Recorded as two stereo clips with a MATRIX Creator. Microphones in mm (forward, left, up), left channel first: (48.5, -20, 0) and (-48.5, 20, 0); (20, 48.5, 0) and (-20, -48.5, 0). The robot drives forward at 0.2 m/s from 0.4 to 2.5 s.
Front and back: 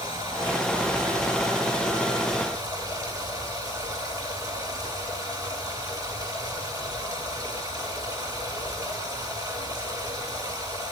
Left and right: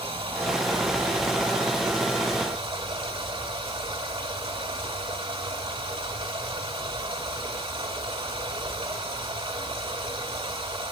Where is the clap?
No clap in this recording.